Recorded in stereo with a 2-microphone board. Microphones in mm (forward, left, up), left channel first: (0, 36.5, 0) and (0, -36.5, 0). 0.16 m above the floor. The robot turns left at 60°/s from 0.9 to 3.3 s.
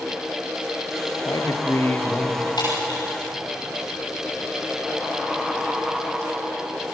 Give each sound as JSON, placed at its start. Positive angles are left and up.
{"t": 1.2, "sound": "a man speaking", "azimuth_deg": 70, "distance_m": 3.5}
{"t": 2.6, "sound": "breaking glass", "side_deg": 75, "distance_m": 9.0}